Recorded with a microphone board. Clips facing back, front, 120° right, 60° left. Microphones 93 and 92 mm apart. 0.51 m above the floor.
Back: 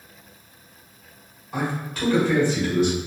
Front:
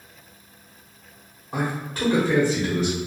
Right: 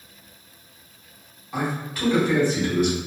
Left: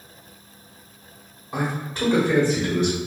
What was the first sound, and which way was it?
A man speaking, 20° left.